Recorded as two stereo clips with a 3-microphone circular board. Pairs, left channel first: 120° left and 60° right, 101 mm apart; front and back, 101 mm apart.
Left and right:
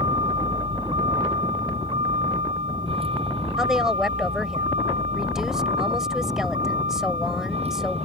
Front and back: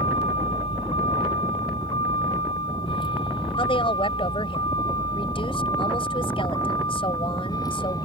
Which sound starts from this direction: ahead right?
A vehicle, at 0.0 s.